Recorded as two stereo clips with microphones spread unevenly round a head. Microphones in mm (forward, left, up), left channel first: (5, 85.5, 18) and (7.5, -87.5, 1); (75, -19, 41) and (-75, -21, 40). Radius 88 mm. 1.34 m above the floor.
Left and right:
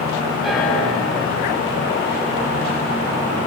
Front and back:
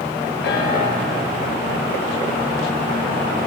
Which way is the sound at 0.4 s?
Straight ahead.